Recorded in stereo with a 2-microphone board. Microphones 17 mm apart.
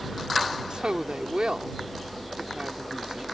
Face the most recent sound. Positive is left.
turn(degrees=-65)  # may be behind; listen again after turning